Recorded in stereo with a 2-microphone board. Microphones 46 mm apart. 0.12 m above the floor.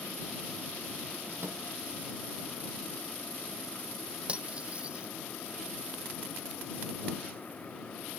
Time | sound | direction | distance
1.4 | a microwave | 65° right (ahead or behind) | ?
4.3 | cutlery clinking | 25° right (ahead or behind) | ?